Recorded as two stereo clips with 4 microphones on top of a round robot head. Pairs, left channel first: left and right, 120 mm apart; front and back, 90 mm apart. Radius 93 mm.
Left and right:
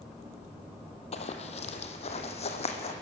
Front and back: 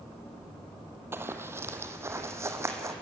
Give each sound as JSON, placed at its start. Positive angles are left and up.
{"t": 1.1, "sound": "running footsteps", "azimuth_deg": 115, "distance_m": 1.4}